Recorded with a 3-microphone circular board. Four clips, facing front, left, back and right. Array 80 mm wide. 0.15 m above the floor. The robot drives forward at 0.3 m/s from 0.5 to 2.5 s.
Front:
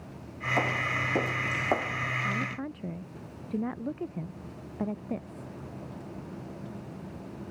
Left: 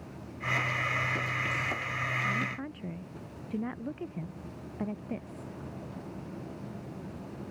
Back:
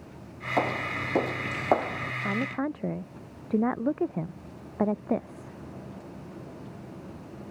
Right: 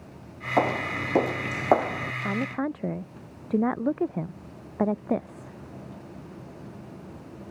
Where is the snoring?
I don't hear snoring.